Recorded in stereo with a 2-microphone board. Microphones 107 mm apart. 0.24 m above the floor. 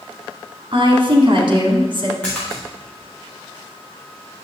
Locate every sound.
0.7 s a woman speaking: 55° right (ahead or behind), 2.0 m
2.2 s a splash: 10° left (ahead or behind), 3.5 m